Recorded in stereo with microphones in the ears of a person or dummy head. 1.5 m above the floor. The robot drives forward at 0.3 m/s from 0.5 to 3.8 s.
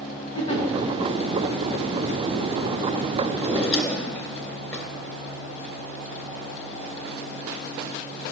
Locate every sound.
0.3 s a giggle: 30° left (ahead or behind), 1.9 m
3.3 s a drawer: 15° left (ahead or behind), 2.5 m